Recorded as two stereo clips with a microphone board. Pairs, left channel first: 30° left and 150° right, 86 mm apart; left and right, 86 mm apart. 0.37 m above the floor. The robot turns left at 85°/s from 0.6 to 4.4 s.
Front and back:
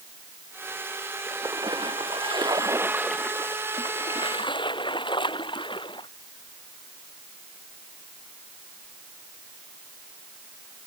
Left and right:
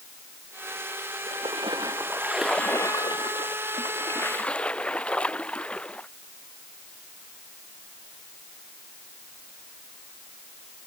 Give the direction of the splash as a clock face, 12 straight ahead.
3 o'clock.